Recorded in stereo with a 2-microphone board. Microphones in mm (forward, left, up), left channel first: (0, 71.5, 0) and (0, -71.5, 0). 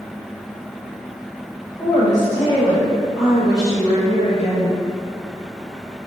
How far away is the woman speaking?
About 1.5 m.